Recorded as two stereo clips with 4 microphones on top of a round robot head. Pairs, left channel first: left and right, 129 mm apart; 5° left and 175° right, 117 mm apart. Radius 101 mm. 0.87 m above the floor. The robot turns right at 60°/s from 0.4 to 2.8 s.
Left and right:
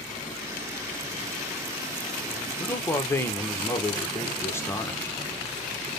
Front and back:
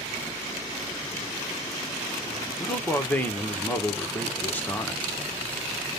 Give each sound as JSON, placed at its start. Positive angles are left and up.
{"t": 2.6, "sound": "a man speaking", "azimuth_deg": 45, "distance_m": 0.9}